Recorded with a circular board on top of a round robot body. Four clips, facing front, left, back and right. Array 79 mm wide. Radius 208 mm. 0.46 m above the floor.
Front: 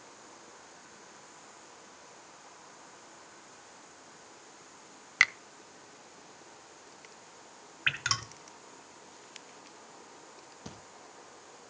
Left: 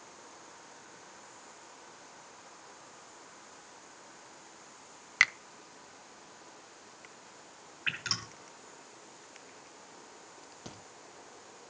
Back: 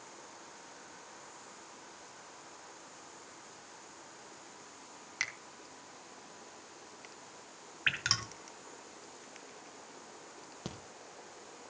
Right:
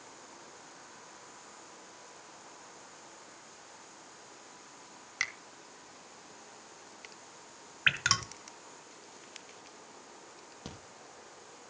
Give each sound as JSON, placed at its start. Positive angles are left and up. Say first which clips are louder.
{"t": 5.2, "sound": "a finger snap", "louder": "left 9 dB, front 13 dB", "azimuth_deg": 45, "distance_m": 0.8}
{"t": 7.9, "sound": "dripping", "louder": "right 8 dB, front 2 dB", "azimuth_deg": -90, "distance_m": 1.6}
{"t": 10.7, "sound": "a crack", "louder": "right 2 dB, back 3 dB", "azimuth_deg": -165, "distance_m": 3.5}